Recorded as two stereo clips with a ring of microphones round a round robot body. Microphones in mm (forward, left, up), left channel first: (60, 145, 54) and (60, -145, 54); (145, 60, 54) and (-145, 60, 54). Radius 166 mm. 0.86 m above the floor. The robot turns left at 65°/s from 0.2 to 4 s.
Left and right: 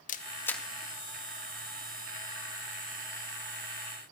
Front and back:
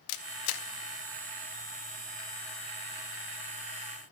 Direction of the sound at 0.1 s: 25° left.